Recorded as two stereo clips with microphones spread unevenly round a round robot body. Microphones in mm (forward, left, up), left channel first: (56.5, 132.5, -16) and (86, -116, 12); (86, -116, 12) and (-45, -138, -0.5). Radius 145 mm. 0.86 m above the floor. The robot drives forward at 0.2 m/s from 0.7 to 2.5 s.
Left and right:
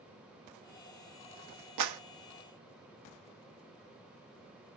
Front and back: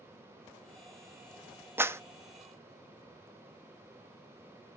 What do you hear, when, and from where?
1.8 s a clap: 100° right, 1.1 m